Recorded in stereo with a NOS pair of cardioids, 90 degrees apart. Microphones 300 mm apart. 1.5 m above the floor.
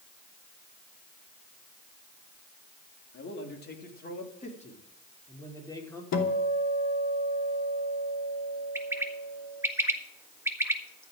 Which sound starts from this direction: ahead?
A bird, at 8.8 s.